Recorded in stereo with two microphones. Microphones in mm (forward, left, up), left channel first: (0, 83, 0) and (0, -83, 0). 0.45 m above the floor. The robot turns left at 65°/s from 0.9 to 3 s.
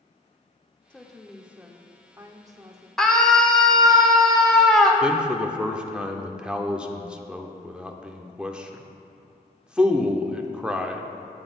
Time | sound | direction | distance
0.9 | a woman speaking | 5° left (ahead or behind) | 0.7 m
3.0 | a scream | centre (ahead or behind) | 1.4 m
5.0 | a man speaking | 5° right (ahead or behind) | 0.7 m